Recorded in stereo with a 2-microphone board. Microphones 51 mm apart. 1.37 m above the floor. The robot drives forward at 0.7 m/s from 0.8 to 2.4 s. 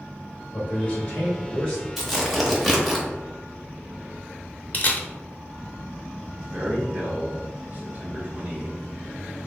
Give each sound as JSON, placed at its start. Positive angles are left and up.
{"t": 0.5, "sound": "a man speaking", "side_deg": 35, "distance_m": 1.6}
{"t": 2.0, "sound": "tearing paper", "side_deg": 0, "distance_m": 0.9}
{"t": 4.7, "sound": "a camera shutter", "side_deg": 40, "distance_m": 0.5}
{"t": 6.5, "sound": "a man speaking", "side_deg": -35, "distance_m": 1.0}